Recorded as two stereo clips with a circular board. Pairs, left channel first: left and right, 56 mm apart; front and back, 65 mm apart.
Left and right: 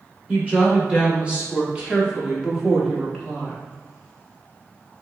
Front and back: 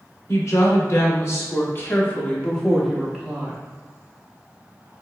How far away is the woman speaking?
About 2.0 m.